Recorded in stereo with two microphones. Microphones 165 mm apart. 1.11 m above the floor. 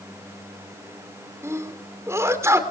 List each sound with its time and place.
1.4 s a sneeze: 15° right (ahead or behind), 3 m